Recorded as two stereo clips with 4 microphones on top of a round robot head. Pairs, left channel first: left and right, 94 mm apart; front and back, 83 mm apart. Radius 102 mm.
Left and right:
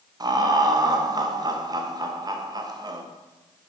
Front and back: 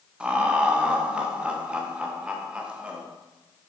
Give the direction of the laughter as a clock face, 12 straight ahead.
3 o'clock.